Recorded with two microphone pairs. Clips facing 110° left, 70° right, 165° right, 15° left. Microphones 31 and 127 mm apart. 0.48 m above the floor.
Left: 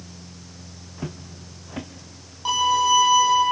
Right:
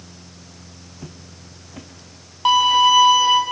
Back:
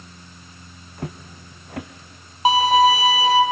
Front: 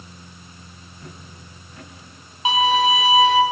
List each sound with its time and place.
1.0 s footsteps: 175° left, 1.6 m
2.5 s a violin: 115° right, 2.5 m